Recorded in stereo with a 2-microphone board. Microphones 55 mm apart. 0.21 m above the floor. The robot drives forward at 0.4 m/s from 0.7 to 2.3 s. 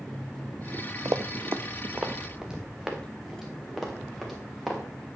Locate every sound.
1.1 s running footsteps: 75° right (ahead or behind), 0.5 m; by 4.8 s centre (ahead or behind), 3.5 m